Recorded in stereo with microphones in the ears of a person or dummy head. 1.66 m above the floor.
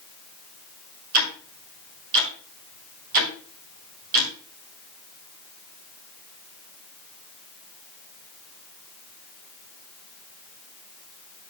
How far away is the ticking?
About 2.0 m.